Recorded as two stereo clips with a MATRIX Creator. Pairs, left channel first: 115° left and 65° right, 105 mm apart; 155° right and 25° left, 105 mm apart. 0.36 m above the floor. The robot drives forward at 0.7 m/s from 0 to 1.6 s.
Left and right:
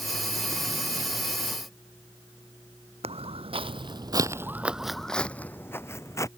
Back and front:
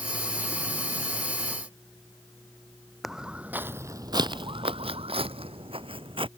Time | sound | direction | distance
3.0 | footsteps | 65° right | ?